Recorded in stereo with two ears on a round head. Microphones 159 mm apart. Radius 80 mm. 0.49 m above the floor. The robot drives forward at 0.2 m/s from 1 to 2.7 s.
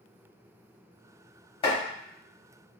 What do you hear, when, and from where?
1.6 s chopping: 30° left (ahead or behind), 1.4 m